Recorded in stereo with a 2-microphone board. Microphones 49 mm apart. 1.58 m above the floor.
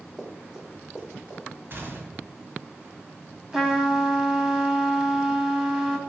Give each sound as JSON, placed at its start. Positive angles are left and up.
{"t": 0.2, "sound": "running footsteps", "side_deg": -10, "distance_m": 4.0}
{"t": 1.7, "sound": "a gunshot", "side_deg": -45, "distance_m": 2.0}
{"t": 3.5, "sound": "a trumpet", "side_deg": -5, "distance_m": 1.7}